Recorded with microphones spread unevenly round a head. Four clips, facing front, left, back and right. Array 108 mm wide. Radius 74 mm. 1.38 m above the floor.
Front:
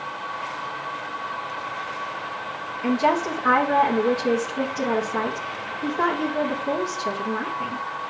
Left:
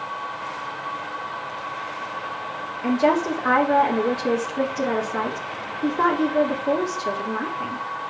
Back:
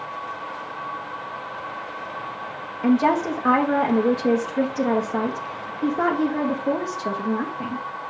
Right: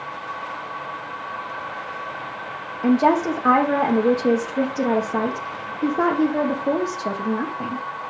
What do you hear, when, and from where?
2.8 s a woman speaking: 130° right, 2 m